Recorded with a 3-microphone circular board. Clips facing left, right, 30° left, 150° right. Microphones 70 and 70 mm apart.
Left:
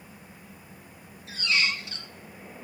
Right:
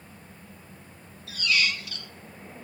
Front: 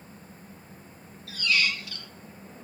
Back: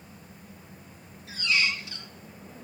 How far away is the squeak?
About 0.7 m.